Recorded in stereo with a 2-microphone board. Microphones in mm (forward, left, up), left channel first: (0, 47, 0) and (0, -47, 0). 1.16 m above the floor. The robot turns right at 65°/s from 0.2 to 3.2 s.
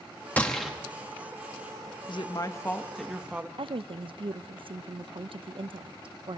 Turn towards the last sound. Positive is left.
turn(degrees=-65)  # may be behind; listen again after turning